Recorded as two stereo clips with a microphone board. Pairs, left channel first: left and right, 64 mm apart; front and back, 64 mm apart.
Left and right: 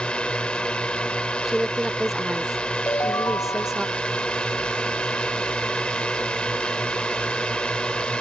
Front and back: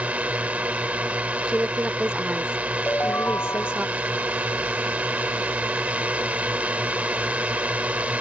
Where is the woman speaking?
165° right.